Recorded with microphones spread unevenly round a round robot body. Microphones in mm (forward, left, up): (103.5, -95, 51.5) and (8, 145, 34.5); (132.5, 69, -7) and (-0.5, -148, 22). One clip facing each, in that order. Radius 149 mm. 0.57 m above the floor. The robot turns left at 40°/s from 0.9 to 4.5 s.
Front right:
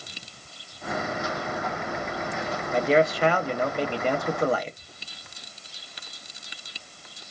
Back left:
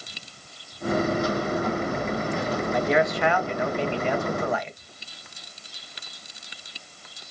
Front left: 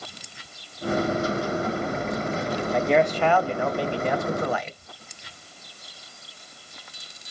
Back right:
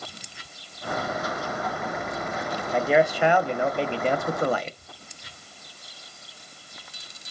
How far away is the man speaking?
About 0.7 m.